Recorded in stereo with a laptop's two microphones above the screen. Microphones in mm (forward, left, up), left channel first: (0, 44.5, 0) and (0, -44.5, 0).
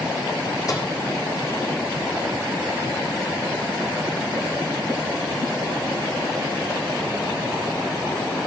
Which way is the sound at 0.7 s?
45° left (ahead or behind).